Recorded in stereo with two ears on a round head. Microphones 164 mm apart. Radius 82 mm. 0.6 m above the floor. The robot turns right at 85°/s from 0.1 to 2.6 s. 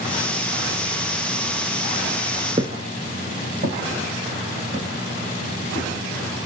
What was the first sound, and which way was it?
Footsteps, 25° right (ahead or behind).